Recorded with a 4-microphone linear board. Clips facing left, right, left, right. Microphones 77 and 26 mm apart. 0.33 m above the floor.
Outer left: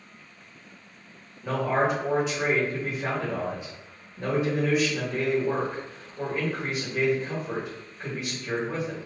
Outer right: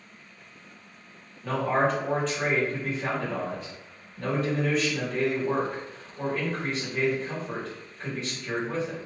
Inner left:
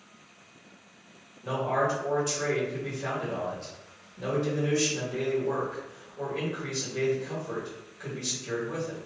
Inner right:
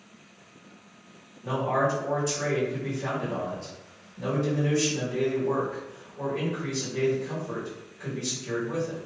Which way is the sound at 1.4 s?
10° left (ahead or behind).